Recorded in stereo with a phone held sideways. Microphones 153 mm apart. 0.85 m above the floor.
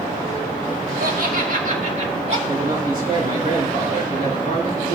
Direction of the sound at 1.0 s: 65° right (ahead or behind).